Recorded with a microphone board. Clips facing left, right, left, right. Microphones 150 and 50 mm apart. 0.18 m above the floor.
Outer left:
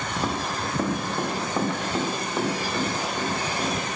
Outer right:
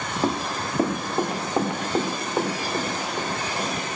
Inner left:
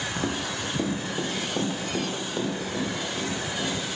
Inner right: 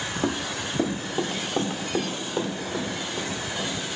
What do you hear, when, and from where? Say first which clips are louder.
0.2 s running footsteps: outer right 4 dB, inner right 2 dB; 20° right (ahead or behind), 1.9 m; by 3.7 s 15° right (ahead or behind), 5.5 m